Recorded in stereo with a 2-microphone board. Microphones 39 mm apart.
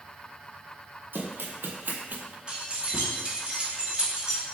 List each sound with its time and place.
1.1 s running footsteps: 75° right (ahead or behind), 1.0 m; by 2.4 s 40° right (ahead or behind), 0.6 m
2.5 s keys jangling: 30° right (ahead or behind), 1.0 m